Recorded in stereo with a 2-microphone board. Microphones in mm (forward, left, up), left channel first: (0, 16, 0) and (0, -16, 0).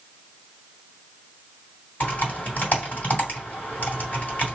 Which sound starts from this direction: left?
Typing on a keyboard, at 2.0 s.